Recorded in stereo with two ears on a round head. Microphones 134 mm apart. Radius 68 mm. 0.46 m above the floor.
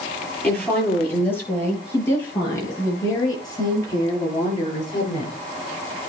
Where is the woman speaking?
10° left (ahead or behind), 8 m; by 5.4 s 35° left (ahead or behind), 7 m.